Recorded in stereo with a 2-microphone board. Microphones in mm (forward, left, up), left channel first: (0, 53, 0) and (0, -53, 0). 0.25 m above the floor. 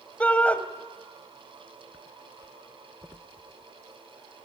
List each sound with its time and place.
0.2 s a shout: 15° left (ahead or behind), 1.2 m